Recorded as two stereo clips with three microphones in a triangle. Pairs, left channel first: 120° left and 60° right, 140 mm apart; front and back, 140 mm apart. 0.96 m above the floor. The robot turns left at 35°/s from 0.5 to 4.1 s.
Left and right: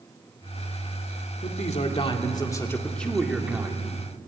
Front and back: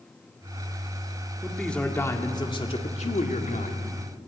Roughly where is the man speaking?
Left.